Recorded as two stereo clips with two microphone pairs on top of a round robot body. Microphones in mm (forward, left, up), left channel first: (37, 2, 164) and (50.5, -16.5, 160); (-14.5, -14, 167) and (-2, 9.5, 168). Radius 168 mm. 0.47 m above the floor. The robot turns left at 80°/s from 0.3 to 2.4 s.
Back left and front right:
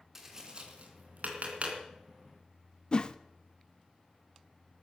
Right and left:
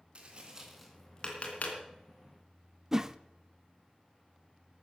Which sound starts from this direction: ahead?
Tapping, at 0.1 s.